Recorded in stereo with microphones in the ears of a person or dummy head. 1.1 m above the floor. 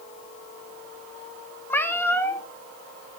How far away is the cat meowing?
About 1.2 m.